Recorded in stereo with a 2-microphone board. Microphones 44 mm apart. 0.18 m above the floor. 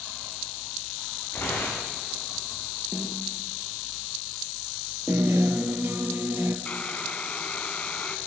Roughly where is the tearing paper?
Left.